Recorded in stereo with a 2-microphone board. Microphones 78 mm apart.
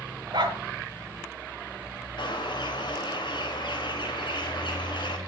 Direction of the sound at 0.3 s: 65° right (ahead or behind).